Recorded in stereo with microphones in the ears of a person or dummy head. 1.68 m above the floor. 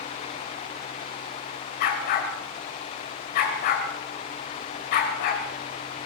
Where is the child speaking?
I don't hear a child speaking.